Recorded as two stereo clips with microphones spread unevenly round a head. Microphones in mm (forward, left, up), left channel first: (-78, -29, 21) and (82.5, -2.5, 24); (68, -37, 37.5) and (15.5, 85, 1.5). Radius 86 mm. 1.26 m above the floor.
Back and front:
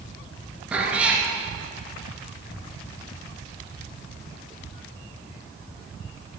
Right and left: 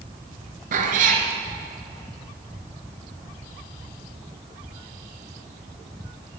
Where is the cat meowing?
90° left, 2 m.